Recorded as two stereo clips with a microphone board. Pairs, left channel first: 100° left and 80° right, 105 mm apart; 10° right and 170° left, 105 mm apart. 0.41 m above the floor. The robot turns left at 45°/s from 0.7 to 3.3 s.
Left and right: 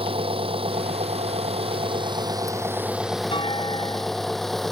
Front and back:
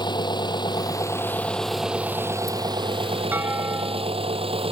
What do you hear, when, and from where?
0.0 s an engine running: 55° right; by 4.7 s 170° right
3.3 s a clunk: 105° left